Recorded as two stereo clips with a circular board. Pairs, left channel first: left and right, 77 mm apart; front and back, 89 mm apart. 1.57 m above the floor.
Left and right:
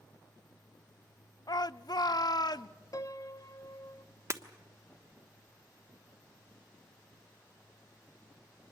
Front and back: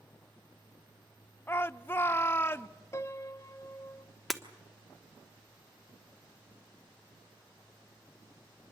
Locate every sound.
1.5 s a shout: 65° left, 0.6 m
2.9 s a piano: 55° left, 0.7 m
4.3 s breaking glass: 90° right, 1.2 m